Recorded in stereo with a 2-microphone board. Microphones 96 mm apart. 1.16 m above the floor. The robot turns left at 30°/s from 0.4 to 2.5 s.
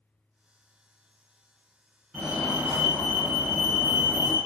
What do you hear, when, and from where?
2.1 s a fire alarm: 5° left (ahead or behind), 1.5 m; by 4.4 s 5° right (ahead or behind), 1.5 m